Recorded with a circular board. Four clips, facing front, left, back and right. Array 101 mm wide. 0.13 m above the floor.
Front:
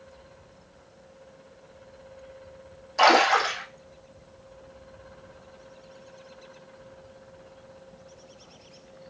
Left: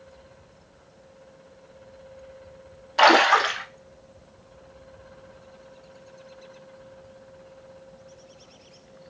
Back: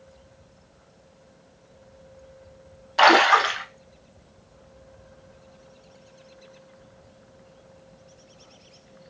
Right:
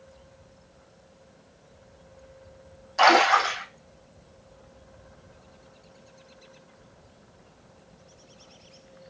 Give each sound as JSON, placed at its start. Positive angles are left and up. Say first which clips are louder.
{"t": 3.0, "sound": "a splash", "louder": "left 2 dB, back 3 dB", "azimuth_deg": 145, "distance_m": 0.7}